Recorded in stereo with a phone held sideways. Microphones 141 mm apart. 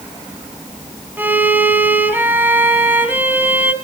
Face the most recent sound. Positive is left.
turn(degrees=-15)  # may be behind; listen again after turning